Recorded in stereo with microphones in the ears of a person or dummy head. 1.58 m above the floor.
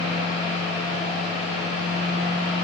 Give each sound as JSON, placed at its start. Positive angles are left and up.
{"t": 0.0, "sound": "a fan", "side_deg": -35, "distance_m": 1.3}